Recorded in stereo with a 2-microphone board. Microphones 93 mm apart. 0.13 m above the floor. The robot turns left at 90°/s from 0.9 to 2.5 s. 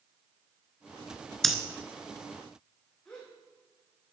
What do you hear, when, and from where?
1.4 s breathing: 5° left (ahead or behind), 1.1 m; by 1.6 s 5° right (ahead or behind), 1.1 m
3.0 s a gasp: 10° left (ahead or behind), 5 m